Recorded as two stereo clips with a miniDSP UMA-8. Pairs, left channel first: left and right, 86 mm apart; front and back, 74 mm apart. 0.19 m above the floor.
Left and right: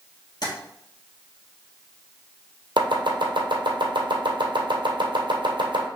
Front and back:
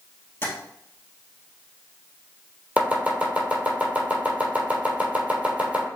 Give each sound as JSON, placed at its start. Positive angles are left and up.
{"t": 0.4, "sound": "tapping", "azimuth_deg": 55, "distance_m": 1.7}
{"t": 2.8, "sound": "chopping", "azimuth_deg": -110, "distance_m": 1.5}